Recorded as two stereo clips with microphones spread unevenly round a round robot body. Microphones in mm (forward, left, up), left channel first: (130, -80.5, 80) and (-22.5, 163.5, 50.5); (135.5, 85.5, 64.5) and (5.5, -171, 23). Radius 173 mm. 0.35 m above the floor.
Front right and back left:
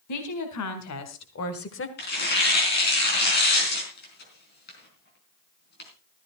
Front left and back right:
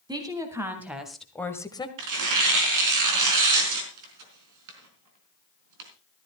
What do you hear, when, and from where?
0.1 s a woman speaking: 45° right, 3 m; by 1.9 s 15° right, 1.7 m
2.0 s tearing paper: 120° right, 4 m